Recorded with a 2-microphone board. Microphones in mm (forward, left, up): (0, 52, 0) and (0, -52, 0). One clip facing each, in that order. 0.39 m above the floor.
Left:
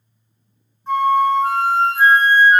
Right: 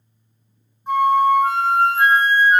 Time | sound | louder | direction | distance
0.9 | a flute | even | 15° right (ahead or behind) | 0.6 m